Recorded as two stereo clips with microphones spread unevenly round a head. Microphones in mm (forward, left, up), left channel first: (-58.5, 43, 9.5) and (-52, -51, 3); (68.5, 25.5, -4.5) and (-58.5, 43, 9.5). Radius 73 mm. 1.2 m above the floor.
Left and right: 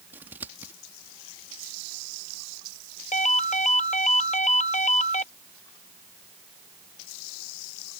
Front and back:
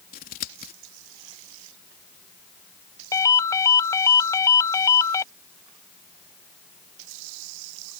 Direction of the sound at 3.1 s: 60° left.